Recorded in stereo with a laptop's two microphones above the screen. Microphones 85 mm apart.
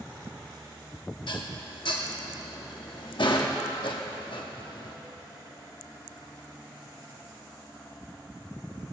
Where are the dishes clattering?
65° left (ahead or behind), 1.0 m.